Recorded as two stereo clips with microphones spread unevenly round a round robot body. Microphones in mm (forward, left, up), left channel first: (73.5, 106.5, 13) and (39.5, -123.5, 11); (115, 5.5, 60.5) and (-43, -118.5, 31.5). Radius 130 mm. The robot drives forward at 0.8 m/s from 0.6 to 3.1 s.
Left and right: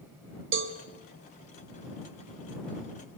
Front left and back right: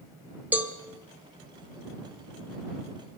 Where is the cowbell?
60° right, 2.5 m; by 0.8 s 65° right, 2.5 m.